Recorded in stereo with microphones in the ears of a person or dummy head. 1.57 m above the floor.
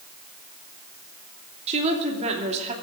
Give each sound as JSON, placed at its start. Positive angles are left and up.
{"t": 1.7, "sound": "a woman speaking", "side_deg": -35, "distance_m": 3.0}